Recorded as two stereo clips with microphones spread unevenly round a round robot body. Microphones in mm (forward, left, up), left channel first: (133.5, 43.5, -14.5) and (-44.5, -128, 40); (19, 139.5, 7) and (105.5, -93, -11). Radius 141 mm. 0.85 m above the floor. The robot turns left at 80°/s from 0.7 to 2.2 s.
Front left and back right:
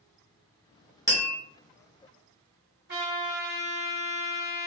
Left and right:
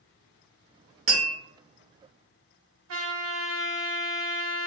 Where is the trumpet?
85° right, 1.2 m.